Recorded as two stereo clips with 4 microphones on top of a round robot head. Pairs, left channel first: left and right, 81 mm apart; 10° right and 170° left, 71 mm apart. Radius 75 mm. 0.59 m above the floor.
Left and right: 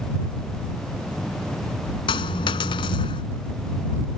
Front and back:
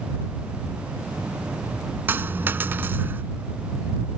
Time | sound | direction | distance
2.1 | a dropped coin | 105° left | ?